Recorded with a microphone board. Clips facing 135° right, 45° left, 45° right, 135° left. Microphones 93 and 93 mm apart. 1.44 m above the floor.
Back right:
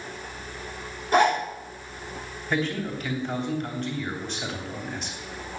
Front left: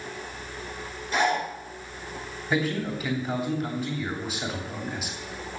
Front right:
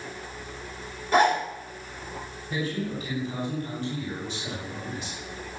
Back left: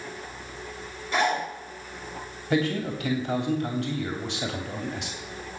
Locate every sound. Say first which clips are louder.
1.1 s a zipper: back right 5 dB, front right 4 dB; 90° right, 6.5 m
2.5 s a man speaking: front left 1 dB, back left 5 dB; 130° left, 3 m